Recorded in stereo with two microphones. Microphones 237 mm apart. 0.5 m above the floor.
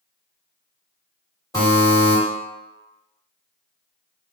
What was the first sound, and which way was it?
A buzzer, 15° left (ahead or behind).